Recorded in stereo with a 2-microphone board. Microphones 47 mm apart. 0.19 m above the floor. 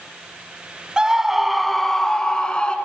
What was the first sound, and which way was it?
A scream, 15° right (ahead or behind).